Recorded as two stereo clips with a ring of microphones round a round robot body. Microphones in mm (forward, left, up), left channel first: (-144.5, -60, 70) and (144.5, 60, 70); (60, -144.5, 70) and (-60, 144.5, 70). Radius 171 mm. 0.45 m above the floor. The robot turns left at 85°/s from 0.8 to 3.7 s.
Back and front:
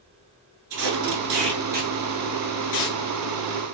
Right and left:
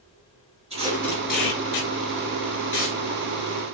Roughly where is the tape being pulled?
Ahead left.